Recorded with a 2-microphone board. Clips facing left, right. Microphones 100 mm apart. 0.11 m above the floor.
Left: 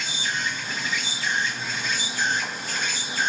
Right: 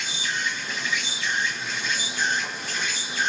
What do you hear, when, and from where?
0.0 s an insect: 40° left (ahead or behind), 1.0 m